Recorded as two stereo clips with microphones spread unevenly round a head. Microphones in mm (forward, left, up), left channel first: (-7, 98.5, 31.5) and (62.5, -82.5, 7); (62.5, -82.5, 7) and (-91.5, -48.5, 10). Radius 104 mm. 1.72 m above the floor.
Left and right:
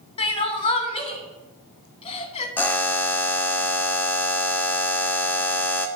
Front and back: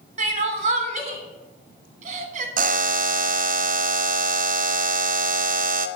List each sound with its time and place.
0.2 s crying: 155° left, 1.3 m
2.6 s a buzzer: 175° right, 0.6 m